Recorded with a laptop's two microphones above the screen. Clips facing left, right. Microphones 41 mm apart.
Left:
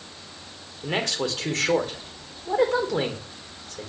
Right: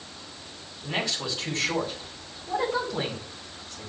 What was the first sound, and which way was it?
A man speaking, 70° left (ahead or behind).